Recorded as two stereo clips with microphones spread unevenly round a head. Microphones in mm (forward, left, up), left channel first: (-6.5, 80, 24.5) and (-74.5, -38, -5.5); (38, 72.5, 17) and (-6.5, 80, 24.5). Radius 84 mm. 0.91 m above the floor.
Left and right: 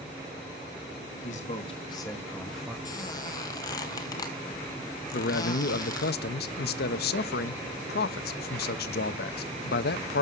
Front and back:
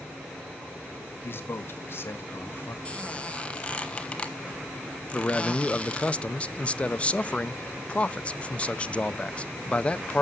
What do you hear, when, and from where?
1.2 s a man speaking: 15° left, 1.6 m; by 2.8 s 45° right, 1.2 m
2.9 s a squeak: 50° left, 1.1 m
5.1 s a man speaking: 50° left, 0.7 m